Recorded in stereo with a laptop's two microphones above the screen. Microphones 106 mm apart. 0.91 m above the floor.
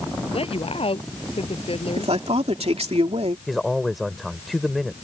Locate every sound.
0.3 s a woman speaking: 60° left (ahead or behind)
2.0 s a man speaking: 70° right (ahead or behind)
3.5 s a man speaking: centre (ahead or behind)